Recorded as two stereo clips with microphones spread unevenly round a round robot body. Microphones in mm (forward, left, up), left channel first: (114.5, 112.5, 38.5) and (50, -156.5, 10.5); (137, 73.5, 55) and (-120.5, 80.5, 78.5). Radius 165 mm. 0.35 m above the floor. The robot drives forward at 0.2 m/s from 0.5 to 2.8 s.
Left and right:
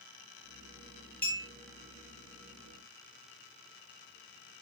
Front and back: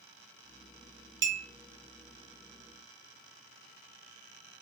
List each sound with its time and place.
1.2 s a clink: 165° left, 0.6 m